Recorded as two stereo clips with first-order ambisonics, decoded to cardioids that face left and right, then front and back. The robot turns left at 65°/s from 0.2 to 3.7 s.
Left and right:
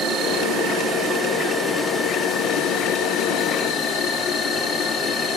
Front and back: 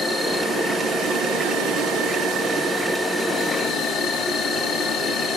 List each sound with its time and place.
0.0 s an insect: 85° right, 1.7 m; by 5.4 s 50° left, 1.7 m